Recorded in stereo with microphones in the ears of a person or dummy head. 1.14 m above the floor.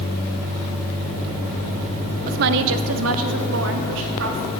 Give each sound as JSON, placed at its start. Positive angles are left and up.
{"t": 2.3, "sound": "a woman speaking", "side_deg": -45, "distance_m": 0.6}